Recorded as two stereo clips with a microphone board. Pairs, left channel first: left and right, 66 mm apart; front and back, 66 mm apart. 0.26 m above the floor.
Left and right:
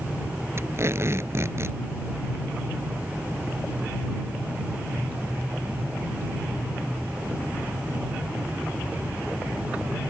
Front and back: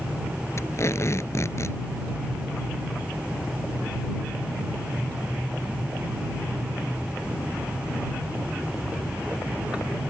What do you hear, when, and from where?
0.6 s tape being pulled: 45° right